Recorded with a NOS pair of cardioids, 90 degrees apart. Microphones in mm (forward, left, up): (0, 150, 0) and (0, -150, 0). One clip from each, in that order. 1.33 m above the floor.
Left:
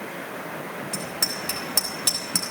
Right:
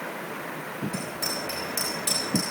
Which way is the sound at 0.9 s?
70° left.